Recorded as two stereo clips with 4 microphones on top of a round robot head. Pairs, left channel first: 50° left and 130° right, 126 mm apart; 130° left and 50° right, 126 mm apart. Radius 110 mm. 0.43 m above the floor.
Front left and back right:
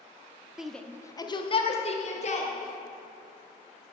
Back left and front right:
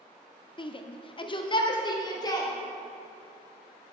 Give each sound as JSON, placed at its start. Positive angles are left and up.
{"t": 0.6, "sound": "a shout", "azimuth_deg": 145, "distance_m": 0.8}